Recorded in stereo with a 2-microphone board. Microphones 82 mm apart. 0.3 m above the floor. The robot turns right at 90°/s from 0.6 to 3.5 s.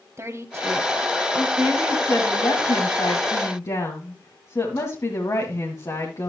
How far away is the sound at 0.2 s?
About 1.6 m.